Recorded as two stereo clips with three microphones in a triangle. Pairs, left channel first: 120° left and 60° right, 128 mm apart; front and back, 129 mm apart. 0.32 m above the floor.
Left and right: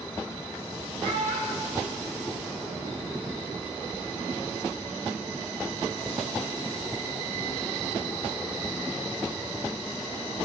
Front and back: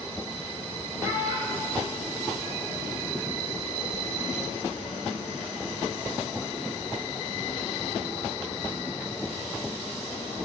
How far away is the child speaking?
About 7.5 m.